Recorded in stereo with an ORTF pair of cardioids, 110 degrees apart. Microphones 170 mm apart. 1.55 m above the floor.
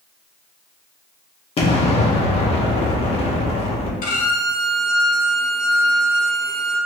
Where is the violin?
50° left, 1.1 m.